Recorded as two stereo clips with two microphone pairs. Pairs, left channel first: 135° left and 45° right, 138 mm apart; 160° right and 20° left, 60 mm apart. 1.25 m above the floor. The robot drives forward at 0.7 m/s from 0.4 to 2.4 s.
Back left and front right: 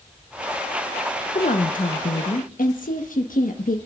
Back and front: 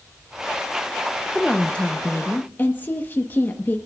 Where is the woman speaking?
115° left, 0.9 m; by 3.8 s 145° left, 1.4 m.